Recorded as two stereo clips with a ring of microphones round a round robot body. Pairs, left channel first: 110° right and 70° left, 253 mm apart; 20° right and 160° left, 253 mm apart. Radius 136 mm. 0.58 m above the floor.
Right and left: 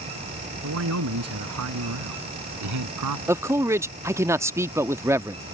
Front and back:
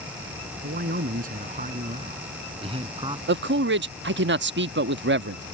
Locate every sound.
0.6 s a man speaking: 100° left; by 3.2 s 85° left
3.3 s a man speaking: 145° left